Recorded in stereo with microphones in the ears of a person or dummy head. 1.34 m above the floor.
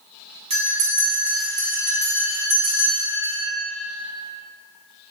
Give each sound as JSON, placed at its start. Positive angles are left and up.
{"t": 0.5, "sound": "a bell", "side_deg": -30, "distance_m": 1.1}